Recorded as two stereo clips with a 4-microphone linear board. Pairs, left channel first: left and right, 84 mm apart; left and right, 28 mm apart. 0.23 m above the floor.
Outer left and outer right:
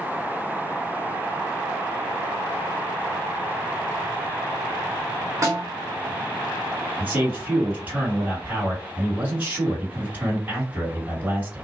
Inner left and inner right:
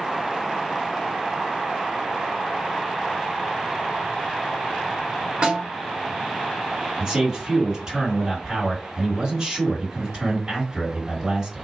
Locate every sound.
5.4 s a snare drum: 35° right (ahead or behind), 2.0 m
7.0 s a man speaking: 20° right (ahead or behind), 2.5 m